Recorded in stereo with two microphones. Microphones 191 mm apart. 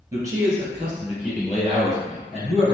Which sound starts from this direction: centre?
A man speaking, at 0.1 s.